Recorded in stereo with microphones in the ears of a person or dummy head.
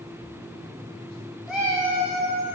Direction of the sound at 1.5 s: Centre (ahead or behind).